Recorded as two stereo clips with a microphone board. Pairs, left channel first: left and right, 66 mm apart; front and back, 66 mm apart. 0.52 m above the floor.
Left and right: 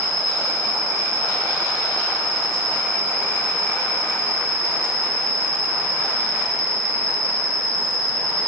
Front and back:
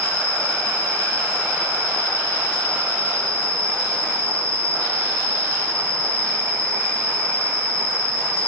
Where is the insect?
45° right, 3.5 m.